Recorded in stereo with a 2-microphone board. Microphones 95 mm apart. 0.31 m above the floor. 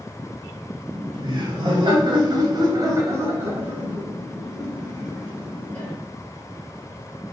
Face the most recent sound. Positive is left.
turn(degrees=5)  # may be behind; listen again after turning